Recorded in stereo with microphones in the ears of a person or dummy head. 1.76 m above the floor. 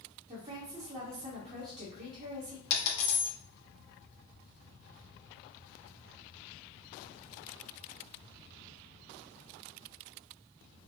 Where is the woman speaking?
35° right (ahead or behind), 1.4 m.